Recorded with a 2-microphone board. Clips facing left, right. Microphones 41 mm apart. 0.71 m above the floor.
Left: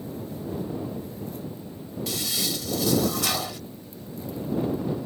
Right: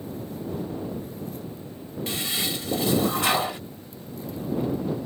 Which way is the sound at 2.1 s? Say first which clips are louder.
Right 1 dB; 30° right (ahead or behind).